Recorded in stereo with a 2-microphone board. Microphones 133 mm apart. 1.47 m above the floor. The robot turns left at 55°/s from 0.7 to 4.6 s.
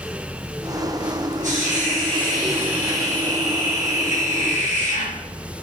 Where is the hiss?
95° right, 5 m; by 5.1 s 90° left, 5 m.